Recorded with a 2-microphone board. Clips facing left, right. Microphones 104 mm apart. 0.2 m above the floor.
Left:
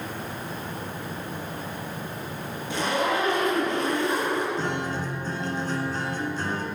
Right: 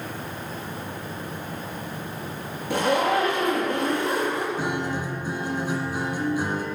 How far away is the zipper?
About 5 m.